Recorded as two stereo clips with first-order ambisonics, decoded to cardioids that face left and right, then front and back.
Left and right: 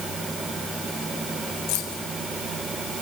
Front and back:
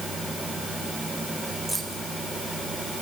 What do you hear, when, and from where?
1.7 s keys jangling: 95° left, 2 m